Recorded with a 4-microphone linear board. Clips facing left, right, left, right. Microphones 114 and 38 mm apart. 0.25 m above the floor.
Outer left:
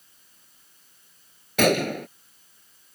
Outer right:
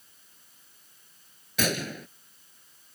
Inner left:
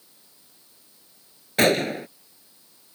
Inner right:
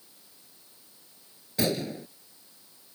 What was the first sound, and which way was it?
A gunshot, 65° left (ahead or behind).